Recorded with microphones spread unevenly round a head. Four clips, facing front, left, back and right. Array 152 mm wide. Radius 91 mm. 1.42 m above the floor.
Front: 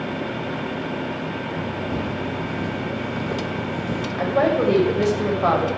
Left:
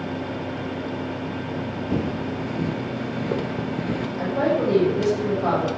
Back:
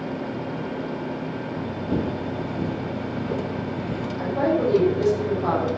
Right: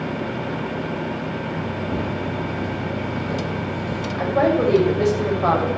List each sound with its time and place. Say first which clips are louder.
1.9 s footsteps: left 2 dB, even; 150° left, 2 m; by 4.1 s 80° left, 1.9 m
4.2 s a woman speaking: right 4 dB, front 3 dB; 25° right, 7 m